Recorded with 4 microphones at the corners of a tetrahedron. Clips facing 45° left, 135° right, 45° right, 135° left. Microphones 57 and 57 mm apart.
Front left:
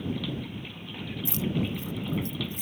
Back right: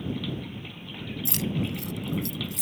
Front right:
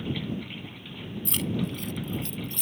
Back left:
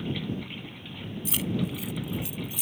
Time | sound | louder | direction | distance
1.2 | keys jangling | even, even | 140° right | ?